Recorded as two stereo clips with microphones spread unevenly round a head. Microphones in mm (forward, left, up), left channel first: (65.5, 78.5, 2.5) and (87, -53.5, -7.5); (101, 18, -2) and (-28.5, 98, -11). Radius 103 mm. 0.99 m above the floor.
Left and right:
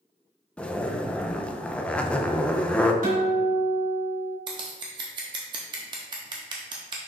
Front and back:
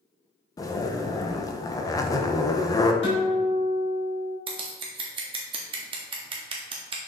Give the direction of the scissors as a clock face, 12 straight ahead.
5 o'clock.